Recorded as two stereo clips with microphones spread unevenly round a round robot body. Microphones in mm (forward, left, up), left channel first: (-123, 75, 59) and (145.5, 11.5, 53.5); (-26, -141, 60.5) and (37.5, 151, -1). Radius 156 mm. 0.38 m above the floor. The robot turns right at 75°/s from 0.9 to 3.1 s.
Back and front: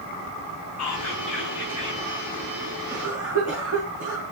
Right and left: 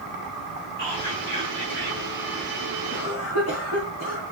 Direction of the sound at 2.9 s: 75° right.